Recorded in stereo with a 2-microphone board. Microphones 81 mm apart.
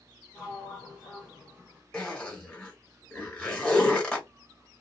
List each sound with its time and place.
0.3 s a sliding door: 10° right (ahead or behind), 1.3 m
1.9 s a zipper: 10° left (ahead or behind), 1.8 m